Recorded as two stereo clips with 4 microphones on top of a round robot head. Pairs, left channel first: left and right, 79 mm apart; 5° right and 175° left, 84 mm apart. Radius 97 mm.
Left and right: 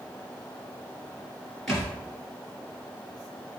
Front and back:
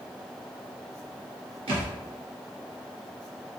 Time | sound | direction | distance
1.7 | a thud | straight behind | 2 m